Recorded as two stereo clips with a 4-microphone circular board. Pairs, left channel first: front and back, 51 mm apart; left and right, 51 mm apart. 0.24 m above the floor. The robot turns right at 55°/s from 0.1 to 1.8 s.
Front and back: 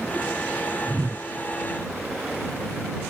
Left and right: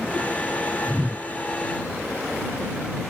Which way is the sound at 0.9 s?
155° right.